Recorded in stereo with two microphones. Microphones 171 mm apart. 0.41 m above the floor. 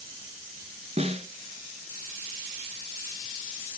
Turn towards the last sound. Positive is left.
turn(degrees=-40)  # may be behind; listen again after turning